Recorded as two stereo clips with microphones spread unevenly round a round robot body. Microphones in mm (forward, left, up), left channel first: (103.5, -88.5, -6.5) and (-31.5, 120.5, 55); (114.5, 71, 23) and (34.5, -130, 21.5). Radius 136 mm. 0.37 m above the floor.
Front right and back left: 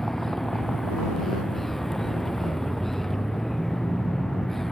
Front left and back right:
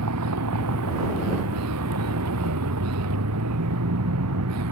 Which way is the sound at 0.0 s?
145° right.